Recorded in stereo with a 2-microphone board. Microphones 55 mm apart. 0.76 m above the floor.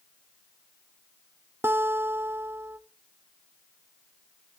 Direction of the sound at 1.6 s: 45° right (ahead or behind).